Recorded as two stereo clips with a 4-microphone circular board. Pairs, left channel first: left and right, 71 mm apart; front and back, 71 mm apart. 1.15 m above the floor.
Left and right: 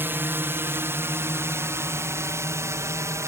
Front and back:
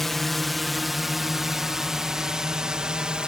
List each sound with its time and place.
0.0 s a drone: 85° right; by 3.3 s 110° right